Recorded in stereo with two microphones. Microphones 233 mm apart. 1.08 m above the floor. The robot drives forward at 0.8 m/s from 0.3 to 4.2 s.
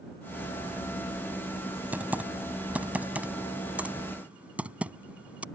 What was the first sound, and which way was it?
Typing on a keyboard, 5° right (ahead or behind).